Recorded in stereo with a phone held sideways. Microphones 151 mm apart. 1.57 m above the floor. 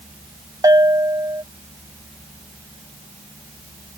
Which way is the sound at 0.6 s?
25° right (ahead or behind).